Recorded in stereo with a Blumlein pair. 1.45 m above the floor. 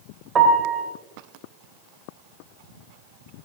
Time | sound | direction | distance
0.3 | a piano | 20° right | 2 m